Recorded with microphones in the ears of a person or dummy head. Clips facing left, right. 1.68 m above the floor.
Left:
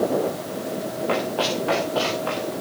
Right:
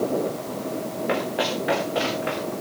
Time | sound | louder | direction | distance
1.1 | running footsteps | left 1 dB | 20° right (ahead or behind) | 7.5 m